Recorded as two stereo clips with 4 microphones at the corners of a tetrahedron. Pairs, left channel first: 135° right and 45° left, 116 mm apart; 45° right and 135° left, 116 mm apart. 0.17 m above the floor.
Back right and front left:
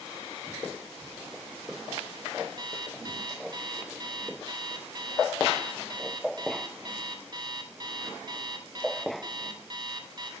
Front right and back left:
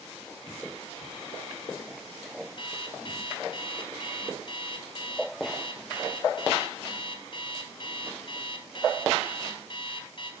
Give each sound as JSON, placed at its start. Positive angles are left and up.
{"t": 2.6, "sound": "an alarm clock", "azimuth_deg": -5, "distance_m": 1.5}